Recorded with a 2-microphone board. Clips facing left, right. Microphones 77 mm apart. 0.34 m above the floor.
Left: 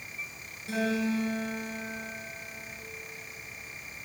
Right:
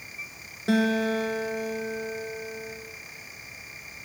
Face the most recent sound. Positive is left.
turn(degrees=-65)  # may be behind; listen again after turning